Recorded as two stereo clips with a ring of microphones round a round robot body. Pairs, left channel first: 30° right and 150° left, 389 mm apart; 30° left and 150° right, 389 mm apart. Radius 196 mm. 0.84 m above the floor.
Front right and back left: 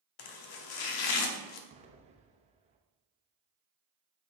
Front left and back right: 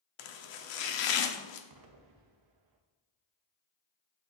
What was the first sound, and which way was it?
Chopping, 5° left.